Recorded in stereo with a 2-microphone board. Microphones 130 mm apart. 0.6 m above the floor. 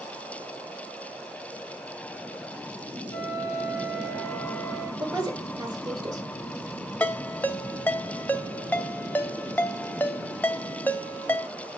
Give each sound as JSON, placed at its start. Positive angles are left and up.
{"t": 3.1, "sound": "a flute", "side_deg": 25, "distance_m": 2.5}
{"t": 5.0, "sound": "a woman speaking", "side_deg": -30, "distance_m": 2.5}
{"t": 7.0, "sound": "a ringtone", "side_deg": 15, "distance_m": 0.6}